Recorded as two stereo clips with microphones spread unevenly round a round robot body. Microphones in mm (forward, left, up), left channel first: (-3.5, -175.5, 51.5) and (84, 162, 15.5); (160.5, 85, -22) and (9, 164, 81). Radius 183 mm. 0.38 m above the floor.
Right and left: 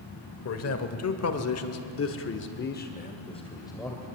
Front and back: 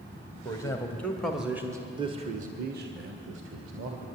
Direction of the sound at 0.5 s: 60° right.